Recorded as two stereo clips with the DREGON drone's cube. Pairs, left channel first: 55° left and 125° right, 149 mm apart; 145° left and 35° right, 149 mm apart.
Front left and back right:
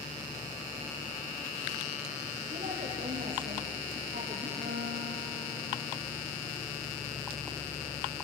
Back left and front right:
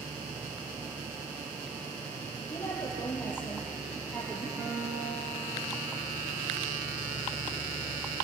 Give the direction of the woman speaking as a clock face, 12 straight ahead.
5 o'clock.